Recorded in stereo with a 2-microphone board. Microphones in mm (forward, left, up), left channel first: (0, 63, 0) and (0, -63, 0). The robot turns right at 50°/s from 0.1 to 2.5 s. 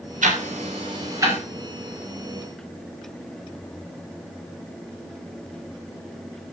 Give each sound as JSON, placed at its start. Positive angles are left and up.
{"t": 0.2, "sound": "ticking", "side_deg": -75, "distance_m": 6.0}